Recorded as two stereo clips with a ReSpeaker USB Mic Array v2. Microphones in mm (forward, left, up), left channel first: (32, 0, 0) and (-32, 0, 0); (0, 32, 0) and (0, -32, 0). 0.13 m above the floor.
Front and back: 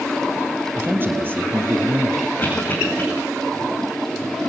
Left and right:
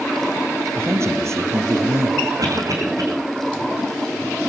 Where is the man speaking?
130° right, 3.5 m; by 2.3 s 125° right, 4.5 m.